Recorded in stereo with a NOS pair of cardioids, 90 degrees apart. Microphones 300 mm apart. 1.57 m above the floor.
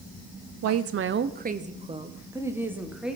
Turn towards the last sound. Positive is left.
turn(degrees=0)